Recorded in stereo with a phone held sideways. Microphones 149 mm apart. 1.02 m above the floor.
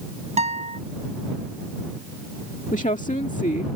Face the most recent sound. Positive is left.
turn(degrees=55)  # may be behind; listen again after turning